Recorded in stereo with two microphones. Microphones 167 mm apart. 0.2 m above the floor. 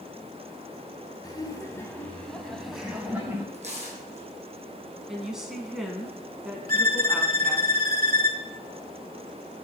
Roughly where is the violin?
Right.